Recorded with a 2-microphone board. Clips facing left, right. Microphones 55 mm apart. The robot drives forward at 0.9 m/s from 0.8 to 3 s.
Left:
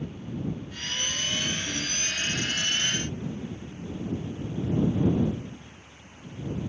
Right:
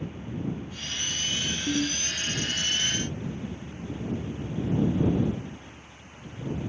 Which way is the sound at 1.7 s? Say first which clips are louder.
Right 5 dB; 50° right (ahead or behind).